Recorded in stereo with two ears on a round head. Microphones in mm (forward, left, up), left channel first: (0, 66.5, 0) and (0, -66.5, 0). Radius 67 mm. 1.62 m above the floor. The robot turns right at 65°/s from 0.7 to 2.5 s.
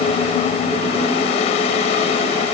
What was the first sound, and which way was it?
Only background noise.